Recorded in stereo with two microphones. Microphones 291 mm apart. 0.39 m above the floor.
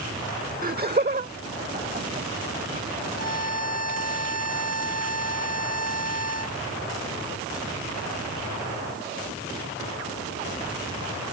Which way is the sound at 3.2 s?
60° right (ahead or behind).